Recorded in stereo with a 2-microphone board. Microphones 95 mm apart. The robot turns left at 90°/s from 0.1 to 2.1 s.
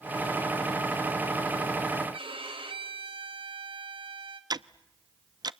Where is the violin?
65° right (ahead or behind), 1.9 m.